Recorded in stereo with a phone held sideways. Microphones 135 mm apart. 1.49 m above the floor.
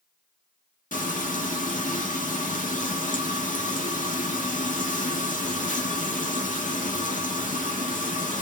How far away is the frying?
About 1.2 m.